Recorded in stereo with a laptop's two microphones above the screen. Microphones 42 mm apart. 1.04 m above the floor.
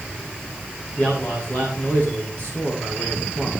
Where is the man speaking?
35° left (ahead or behind), 8 m.